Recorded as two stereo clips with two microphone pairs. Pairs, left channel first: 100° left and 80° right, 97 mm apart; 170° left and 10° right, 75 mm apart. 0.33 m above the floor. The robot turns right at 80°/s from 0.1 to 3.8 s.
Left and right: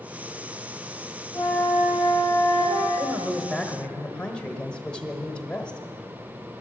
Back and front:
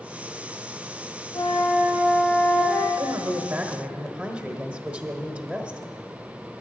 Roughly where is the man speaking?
Ahead right.